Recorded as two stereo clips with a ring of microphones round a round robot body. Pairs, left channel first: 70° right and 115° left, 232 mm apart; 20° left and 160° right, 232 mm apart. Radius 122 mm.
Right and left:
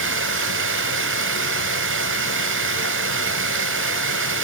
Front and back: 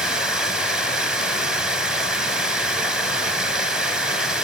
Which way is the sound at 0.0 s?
115° left.